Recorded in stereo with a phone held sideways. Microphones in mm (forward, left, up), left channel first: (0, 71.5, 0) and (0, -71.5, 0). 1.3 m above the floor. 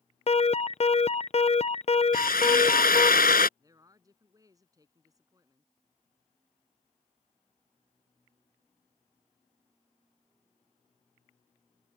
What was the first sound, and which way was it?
An alarm, 45° left (ahead or behind).